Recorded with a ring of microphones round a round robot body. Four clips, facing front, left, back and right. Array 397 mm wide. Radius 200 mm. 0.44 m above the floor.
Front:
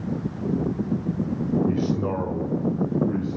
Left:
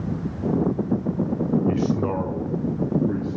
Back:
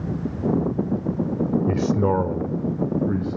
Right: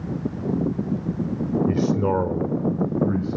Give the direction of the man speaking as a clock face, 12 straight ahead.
6 o'clock.